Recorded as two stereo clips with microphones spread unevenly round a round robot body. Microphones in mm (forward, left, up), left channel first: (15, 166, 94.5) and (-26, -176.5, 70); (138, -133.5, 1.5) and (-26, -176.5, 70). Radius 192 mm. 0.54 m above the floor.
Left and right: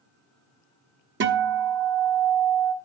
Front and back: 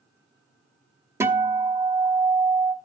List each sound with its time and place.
1.2 s a guitar: 65° right, 1.1 m